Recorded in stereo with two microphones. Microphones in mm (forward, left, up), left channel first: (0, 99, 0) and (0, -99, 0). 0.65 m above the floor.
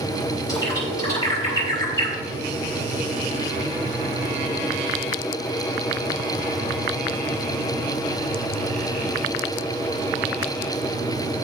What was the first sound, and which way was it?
A bird, 15° left (ahead or behind).